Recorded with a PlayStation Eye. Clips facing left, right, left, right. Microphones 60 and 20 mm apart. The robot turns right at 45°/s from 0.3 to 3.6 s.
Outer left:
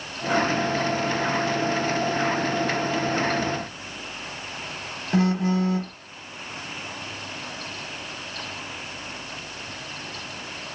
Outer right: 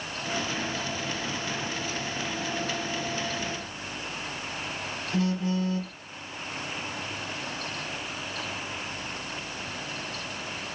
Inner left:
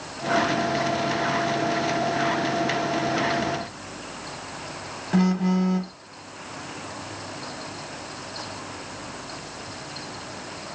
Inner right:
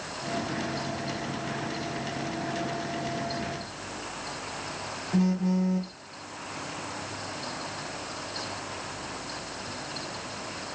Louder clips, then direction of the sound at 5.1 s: Outer left 6 dB, inner left 4 dB; 65° left (ahead or behind).